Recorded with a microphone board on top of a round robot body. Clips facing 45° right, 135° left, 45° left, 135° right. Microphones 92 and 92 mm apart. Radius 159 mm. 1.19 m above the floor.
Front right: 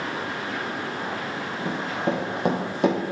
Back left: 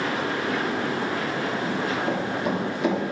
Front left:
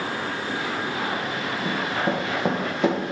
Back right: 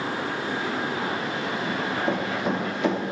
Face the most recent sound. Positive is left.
turn(degrees=-10)